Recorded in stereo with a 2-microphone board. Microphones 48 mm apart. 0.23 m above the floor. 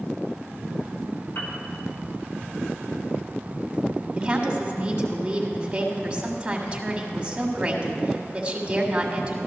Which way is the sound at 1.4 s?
60° left (ahead or behind).